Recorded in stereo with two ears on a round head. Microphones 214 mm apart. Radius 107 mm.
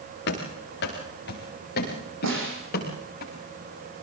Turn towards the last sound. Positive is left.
turn(degrees=-55)  # may be behind; listen again after turning